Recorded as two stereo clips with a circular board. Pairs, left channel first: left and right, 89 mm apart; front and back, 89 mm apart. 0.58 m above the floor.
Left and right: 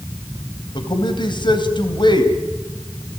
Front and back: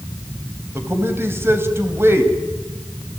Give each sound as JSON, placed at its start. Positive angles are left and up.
{"t": 0.8, "sound": "a man speaking", "azimuth_deg": 120, "distance_m": 3.0}